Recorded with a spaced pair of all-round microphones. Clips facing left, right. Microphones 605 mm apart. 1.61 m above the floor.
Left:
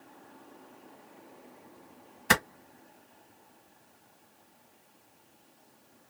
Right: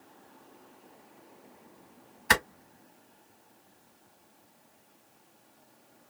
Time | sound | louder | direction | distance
2.3 | a clap | left 2 dB | 65° left (ahead or behind) | 1.6 m